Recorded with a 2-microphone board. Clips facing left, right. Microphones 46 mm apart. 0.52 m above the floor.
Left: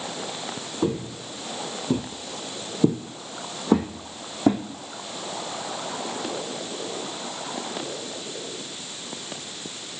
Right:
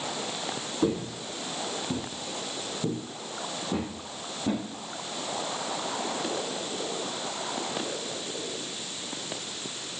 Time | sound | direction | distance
0.8 | footsteps | 5° left (ahead or behind) | 1.2 m